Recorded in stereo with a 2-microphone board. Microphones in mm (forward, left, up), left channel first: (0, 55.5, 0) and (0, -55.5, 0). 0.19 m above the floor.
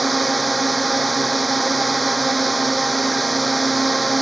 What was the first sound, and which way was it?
A drone, centre (ahead or behind).